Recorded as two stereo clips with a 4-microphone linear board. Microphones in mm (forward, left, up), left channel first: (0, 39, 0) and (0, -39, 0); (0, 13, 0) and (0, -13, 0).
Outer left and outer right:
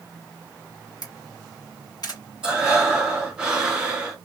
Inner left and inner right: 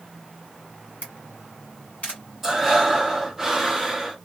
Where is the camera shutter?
55° left (ahead or behind), 1.9 m.